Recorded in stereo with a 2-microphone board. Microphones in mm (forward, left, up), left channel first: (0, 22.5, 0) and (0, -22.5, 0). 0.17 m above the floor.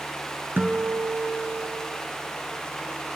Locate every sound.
0.6 s a guitar: 50° right (ahead or behind), 1.9 m